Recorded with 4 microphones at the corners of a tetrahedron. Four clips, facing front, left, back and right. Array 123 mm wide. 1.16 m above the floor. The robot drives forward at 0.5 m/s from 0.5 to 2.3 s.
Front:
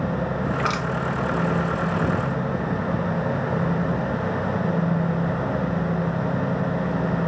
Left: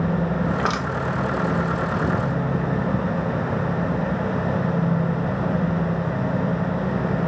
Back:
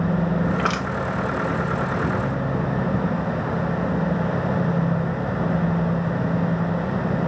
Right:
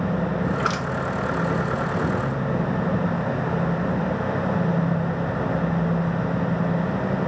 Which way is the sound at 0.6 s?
95° left.